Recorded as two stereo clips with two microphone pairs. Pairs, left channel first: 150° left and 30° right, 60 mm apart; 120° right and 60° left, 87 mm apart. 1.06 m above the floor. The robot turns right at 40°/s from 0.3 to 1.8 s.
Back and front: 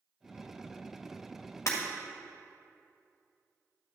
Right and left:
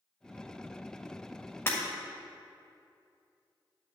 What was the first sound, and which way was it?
Breaking glass, straight behind.